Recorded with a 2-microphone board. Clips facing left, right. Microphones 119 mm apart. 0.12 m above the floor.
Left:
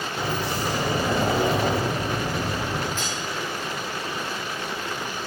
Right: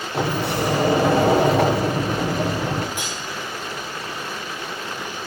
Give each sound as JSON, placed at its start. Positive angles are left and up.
{"t": 0.1, "sound": "a sliding door", "side_deg": -65, "distance_m": 4.5}
{"t": 3.0, "sound": "cutlery clinking", "side_deg": -15, "distance_m": 7.5}